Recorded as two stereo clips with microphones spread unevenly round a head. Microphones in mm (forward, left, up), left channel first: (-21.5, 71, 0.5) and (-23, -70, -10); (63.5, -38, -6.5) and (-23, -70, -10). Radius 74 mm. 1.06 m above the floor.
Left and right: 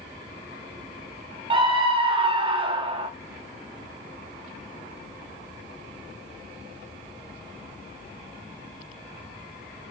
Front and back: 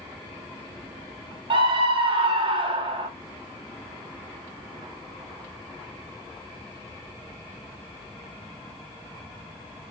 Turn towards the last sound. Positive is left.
turn(degrees=-140)